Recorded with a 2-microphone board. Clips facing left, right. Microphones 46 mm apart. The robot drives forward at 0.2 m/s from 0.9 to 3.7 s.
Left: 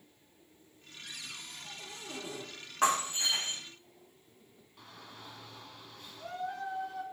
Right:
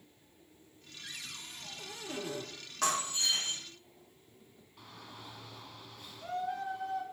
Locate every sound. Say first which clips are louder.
1.0 s a cupboard door: even; 30° right (ahead or behind), 1.3 m; by 2.5 s 35° right (ahead or behind), 1.1 m
2.8 s breaking glass: left 4 dB; 25° left (ahead or behind), 2.0 m
4.8 s a shout: even; 5° right (ahead or behind), 1.4 m